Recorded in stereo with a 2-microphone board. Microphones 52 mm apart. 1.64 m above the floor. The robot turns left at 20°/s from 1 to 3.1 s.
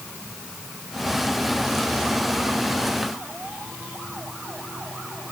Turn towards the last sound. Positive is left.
No sound to turn to.